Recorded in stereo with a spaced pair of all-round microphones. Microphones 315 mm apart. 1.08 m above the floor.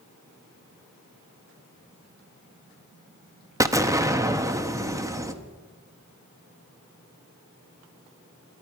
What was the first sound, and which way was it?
An explosion, 10° right (ahead or behind).